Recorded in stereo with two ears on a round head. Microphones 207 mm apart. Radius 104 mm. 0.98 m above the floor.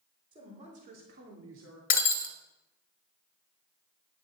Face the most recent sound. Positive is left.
turn(degrees=40)  # may be behind; listen again after turning